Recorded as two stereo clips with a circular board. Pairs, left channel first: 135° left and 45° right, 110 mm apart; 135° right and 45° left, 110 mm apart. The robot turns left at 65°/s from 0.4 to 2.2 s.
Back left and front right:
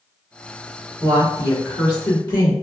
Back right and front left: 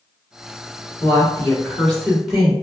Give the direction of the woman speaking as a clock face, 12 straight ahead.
5 o'clock.